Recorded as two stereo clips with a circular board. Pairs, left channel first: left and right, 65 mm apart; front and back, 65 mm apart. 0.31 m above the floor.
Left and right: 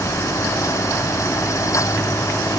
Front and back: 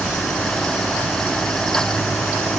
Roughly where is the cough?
No cough in this recording.